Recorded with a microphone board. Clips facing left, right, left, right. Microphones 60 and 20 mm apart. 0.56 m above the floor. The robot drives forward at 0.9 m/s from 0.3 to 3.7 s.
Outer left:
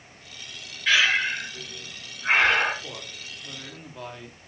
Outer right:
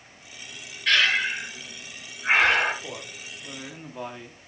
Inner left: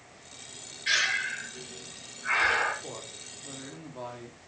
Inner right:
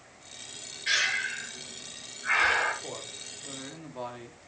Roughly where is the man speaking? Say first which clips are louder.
Outer right 2 dB, inner right 2 dB; centre.